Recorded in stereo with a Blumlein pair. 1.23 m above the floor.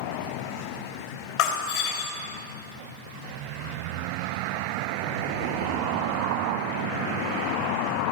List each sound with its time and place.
1.4 s breaking glass: 50° left, 3.5 m